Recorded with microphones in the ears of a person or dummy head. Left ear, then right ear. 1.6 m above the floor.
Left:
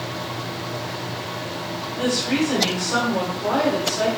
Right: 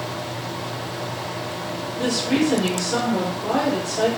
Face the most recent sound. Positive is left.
turn(degrees=25)  # may be behind; listen again after turning